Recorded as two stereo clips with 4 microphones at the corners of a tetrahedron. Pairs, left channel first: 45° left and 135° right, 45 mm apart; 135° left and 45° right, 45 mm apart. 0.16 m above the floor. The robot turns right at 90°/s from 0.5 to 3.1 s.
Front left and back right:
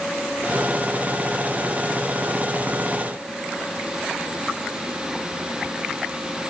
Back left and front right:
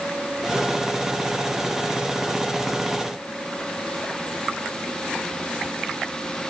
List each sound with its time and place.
Only background noise.